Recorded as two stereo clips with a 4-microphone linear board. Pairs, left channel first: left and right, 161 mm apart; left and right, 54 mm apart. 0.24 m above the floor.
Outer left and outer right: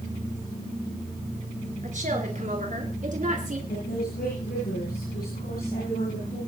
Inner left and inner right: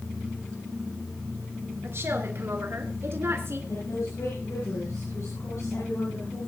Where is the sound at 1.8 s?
55° right (ahead or behind), 4 m.